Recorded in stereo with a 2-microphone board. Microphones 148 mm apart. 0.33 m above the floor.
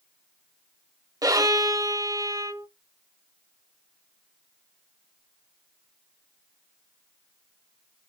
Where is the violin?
25° right (ahead or behind), 1.0 m.